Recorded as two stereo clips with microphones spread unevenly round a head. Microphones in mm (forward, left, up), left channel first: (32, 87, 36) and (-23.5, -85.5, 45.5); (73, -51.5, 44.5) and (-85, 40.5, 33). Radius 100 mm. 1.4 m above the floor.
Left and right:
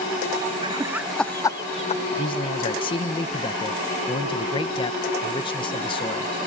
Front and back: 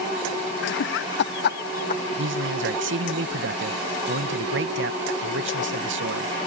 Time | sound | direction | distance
0.6 | laughter | 45° right | ?
2.2 | a man speaking | 135° left | ?